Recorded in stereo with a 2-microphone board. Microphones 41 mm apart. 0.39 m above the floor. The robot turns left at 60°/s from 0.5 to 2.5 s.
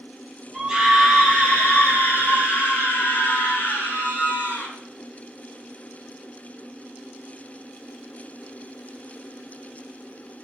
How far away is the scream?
About 8 m.